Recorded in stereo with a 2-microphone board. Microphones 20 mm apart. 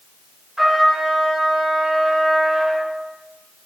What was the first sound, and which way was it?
A trumpet, 30° right (ahead or behind).